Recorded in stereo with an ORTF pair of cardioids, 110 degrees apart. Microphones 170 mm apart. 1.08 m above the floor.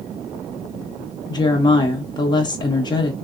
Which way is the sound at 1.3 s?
25° left.